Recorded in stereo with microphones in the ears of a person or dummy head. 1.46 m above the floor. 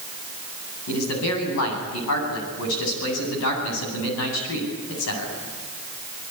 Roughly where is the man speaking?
Left.